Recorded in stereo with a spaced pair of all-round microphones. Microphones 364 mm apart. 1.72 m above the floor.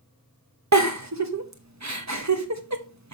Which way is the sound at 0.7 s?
50° right (ahead or behind).